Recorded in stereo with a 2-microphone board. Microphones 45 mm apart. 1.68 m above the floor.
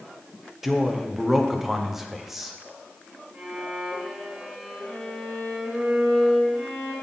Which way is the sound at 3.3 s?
30° right (ahead or behind).